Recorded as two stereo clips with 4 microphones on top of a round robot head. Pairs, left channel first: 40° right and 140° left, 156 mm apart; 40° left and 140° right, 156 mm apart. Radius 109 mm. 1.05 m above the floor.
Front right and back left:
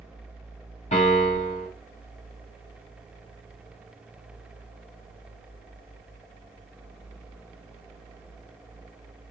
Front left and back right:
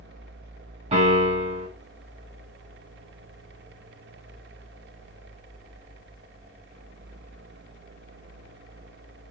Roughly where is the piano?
Right.